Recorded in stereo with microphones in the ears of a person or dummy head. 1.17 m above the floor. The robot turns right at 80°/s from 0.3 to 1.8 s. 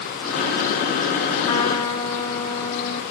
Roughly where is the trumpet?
Left.